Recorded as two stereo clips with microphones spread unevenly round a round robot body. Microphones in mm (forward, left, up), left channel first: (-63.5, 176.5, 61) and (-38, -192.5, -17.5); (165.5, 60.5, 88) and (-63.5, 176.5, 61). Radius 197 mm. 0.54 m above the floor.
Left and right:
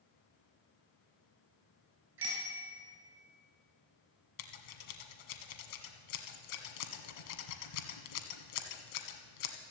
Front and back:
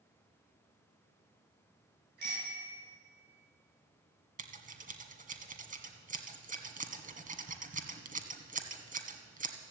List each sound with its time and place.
2.2 s a bicycle bell: 145° right, 6.5 m
4.4 s scissors: 90° left, 1.7 m